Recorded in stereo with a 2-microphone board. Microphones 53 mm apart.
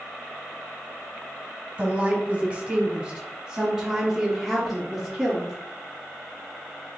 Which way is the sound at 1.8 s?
30° right (ahead or behind).